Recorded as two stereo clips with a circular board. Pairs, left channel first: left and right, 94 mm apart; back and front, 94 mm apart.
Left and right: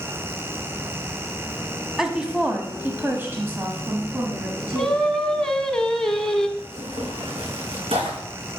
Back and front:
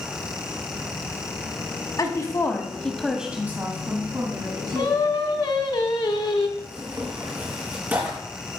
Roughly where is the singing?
Behind.